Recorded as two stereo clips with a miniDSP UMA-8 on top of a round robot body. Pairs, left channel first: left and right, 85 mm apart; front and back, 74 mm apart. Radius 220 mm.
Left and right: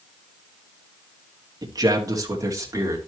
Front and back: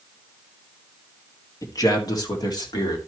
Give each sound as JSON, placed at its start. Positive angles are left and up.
{"t": 1.6, "sound": "a man speaking", "azimuth_deg": -45, "distance_m": 1.9}